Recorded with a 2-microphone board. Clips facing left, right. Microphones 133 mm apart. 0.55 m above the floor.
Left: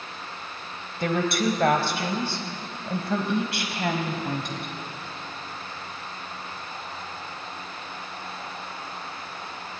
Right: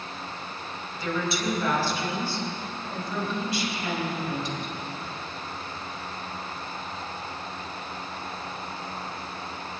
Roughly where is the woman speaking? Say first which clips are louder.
Left 4 dB; left.